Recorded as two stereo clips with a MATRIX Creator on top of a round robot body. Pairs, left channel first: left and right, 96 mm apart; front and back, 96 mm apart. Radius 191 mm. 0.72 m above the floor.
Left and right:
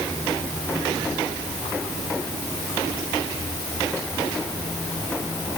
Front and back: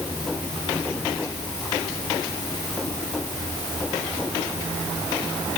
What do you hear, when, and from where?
Only background noise.